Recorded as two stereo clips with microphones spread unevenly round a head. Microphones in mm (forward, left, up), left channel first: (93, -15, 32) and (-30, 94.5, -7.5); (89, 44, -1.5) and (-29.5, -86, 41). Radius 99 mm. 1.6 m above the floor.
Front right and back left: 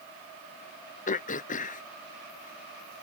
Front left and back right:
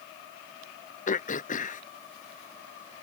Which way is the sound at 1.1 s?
5° right.